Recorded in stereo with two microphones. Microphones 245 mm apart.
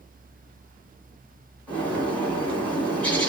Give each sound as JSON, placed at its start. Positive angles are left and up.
{"t": 1.7, "sound": "a bird", "side_deg": 5, "distance_m": 2.5}